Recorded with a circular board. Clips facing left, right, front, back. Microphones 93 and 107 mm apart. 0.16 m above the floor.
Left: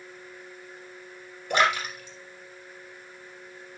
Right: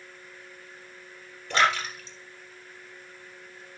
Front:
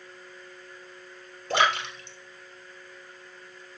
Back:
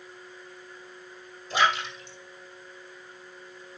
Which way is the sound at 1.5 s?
15° left.